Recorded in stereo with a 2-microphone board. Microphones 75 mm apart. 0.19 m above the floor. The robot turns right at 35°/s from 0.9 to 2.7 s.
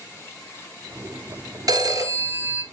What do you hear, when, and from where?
1.7 s a phone ringing: 55° right, 1.8 m; by 2.6 s 25° right, 1.8 m